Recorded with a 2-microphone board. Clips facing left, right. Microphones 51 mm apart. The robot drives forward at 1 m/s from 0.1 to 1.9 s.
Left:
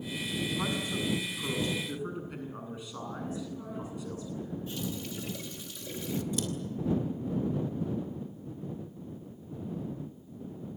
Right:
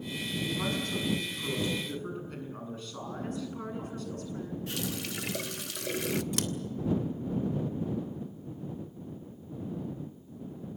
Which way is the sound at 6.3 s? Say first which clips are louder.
Even; 75° right (ahead or behind).